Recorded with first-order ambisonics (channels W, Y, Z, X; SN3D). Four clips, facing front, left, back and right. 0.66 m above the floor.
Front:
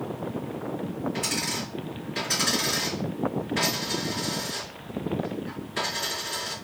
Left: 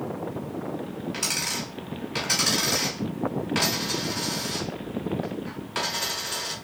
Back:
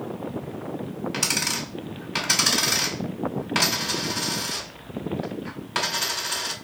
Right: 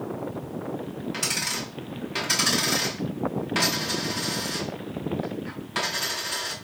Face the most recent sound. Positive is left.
turn(degrees=180)